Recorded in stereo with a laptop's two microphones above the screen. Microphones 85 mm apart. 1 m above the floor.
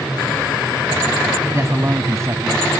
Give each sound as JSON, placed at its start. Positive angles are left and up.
{"t": 1.5, "sound": "a man speaking", "side_deg": -35}